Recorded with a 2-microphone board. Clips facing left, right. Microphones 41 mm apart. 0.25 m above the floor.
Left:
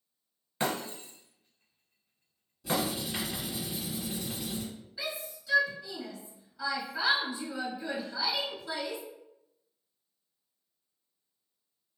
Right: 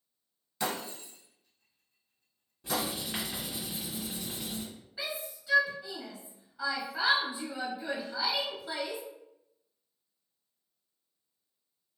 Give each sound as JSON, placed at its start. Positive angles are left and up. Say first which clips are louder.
{"t": 0.6, "sound": "breaking glass", "louder": "left 2 dB", "side_deg": 40, "distance_m": 0.7}
{"t": 2.6, "sound": "writing", "louder": "left 2 dB", "side_deg": -35, "distance_m": 1.9}
{"t": 5.0, "sound": "a shout", "louder": "even", "side_deg": -25, "distance_m": 1.0}